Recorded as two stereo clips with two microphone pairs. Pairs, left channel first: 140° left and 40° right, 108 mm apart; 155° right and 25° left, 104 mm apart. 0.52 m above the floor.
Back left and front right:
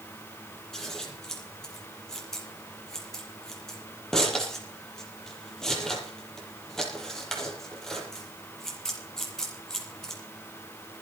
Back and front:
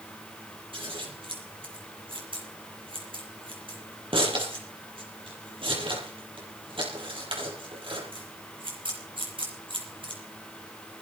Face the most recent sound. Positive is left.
turn(degrees=55)